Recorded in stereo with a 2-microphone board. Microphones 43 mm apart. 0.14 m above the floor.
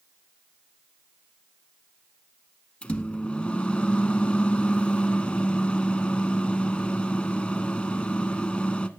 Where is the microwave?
25° left (ahead or behind), 0.9 m.